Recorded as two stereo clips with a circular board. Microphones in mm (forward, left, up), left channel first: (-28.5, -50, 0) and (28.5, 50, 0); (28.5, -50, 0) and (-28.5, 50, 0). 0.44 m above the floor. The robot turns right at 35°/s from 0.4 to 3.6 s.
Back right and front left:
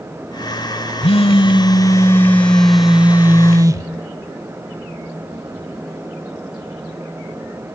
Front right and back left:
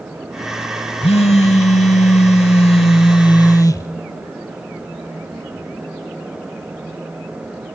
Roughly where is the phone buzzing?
Right.